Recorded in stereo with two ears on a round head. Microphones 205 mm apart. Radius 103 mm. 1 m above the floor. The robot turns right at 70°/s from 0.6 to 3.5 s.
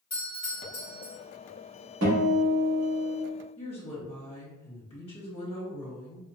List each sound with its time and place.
0.1 s a doorbell: 155° left, 1.8 m; by 1.1 s 170° right, 1.8 m
2.0 s a guitar: 110° right, 1.4 m; by 3.1 s 30° right, 1.4 m
3.6 s a woman speaking: 25° left (ahead or behind), 1.2 m